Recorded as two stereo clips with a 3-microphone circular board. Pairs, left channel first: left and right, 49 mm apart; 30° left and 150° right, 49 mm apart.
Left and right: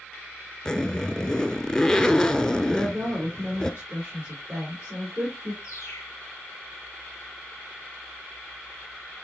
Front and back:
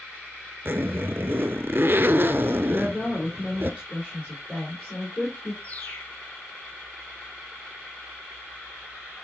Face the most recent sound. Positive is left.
turn(degrees=85)